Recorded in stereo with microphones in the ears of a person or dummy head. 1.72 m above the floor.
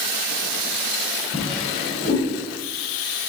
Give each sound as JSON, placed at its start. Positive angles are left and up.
{"t": 1.3, "sound": "a drawer", "side_deg": 60, "distance_m": 2.5}